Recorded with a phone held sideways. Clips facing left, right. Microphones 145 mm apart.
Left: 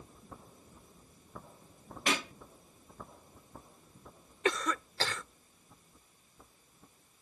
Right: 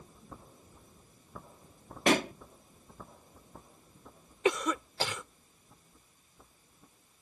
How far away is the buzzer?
No buzzer in this recording.